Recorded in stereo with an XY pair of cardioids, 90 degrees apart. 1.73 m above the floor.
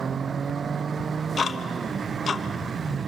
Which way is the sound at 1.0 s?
40° left.